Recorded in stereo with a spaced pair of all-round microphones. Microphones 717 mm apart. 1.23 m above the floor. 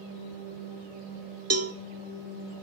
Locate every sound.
1.5 s a cowbell: 20° right (ahead or behind), 0.6 m